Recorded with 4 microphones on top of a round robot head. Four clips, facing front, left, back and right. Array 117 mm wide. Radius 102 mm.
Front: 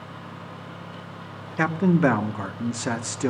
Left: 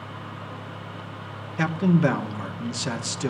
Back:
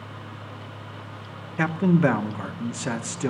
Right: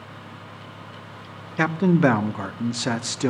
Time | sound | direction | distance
1.6 | a man speaking | 75° right | 0.9 m